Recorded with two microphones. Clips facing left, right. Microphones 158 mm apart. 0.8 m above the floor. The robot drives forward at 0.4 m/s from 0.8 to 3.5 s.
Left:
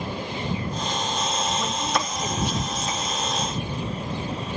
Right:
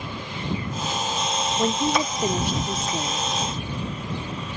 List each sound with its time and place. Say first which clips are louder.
1.6 s a woman speaking: right 4 dB; 45° right (ahead or behind); by 3.3 s 60° right (ahead or behind)